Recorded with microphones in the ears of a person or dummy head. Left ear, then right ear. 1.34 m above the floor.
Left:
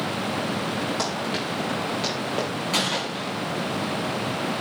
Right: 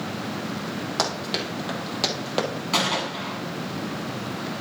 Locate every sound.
1.0 s running footsteps: 25° right (ahead or behind), 3.5 m; by 2.5 s 35° right (ahead or behind), 2.5 m
2.7 s a gunshot: 5° right (ahead or behind), 2.5 m